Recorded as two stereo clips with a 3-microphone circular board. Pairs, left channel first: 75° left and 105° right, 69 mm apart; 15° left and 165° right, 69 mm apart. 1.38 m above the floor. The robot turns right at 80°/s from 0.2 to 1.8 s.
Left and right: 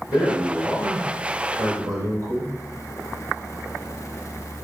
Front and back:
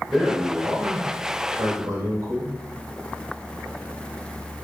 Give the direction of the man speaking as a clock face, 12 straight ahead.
9 o'clock.